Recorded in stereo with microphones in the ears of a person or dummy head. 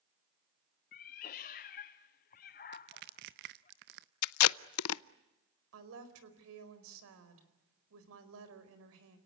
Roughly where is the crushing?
Right.